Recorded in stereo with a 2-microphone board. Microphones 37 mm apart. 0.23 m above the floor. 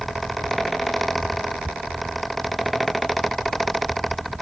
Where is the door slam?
No door slam in this recording.